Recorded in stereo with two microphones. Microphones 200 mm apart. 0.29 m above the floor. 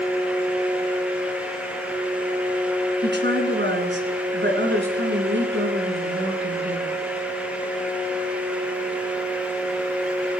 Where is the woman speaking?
65° right (ahead or behind), 3 m; by 6.9 s 75° right (ahead or behind), 4.5 m.